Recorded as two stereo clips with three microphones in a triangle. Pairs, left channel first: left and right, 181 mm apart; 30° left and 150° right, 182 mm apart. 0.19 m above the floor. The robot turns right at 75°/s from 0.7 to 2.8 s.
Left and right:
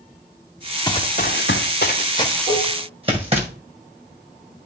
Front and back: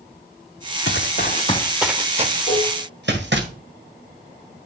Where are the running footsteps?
25° left, 0.9 m; by 3.5 s 145° right, 2 m.